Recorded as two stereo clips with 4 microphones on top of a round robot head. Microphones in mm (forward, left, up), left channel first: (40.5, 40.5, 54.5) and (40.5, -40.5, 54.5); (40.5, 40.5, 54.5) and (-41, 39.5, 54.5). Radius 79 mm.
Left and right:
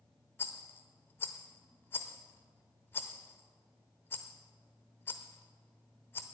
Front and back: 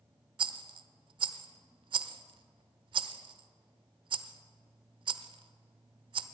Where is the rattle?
160° left, 0.7 m.